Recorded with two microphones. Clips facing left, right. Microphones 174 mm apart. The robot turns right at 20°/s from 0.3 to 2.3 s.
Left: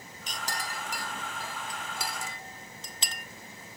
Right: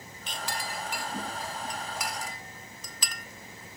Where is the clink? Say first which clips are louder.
Right 1 dB; 45° left (ahead or behind), 1.0 m; by 3.2 s 25° left (ahead or behind), 1.0 m.